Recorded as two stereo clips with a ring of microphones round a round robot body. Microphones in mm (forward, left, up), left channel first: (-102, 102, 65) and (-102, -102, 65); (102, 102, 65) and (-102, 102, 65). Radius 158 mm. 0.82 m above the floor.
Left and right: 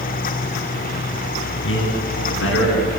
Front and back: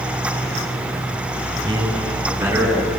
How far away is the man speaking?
About 8 m.